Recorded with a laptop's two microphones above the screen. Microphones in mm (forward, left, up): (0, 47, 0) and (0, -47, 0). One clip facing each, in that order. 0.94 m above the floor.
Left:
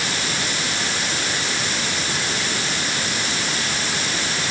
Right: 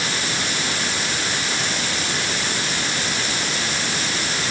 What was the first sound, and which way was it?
Only background noise.